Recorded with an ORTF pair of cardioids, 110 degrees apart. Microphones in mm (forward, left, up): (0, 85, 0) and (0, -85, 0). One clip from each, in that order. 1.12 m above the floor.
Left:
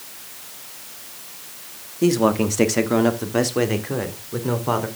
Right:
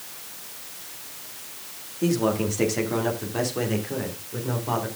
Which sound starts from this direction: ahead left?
A man speaking, at 2.0 s.